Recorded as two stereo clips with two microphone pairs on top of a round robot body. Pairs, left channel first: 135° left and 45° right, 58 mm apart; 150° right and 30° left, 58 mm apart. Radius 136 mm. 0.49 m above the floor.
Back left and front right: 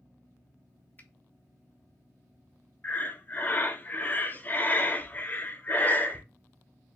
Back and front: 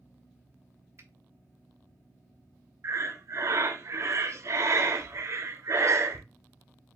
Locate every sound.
1.0 s a finger snap: 75° left, 1.2 m
2.8 s breathing: 70° left, 0.8 m